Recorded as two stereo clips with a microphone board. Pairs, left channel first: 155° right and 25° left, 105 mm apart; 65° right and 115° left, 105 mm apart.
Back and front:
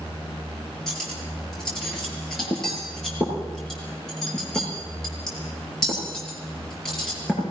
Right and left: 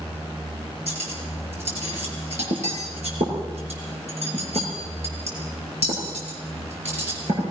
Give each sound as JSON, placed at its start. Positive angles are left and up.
{"t": 0.9, "sound": "cutlery clinking", "azimuth_deg": 115, "distance_m": 7.0}